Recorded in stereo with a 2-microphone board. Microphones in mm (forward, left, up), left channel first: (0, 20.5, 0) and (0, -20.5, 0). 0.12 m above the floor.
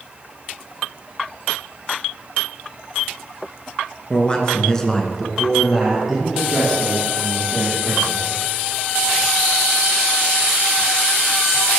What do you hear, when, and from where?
4.1 s a man speaking: 20° left (ahead or behind), 1.5 m; by 8.2 s 15° right (ahead or behind), 4.5 m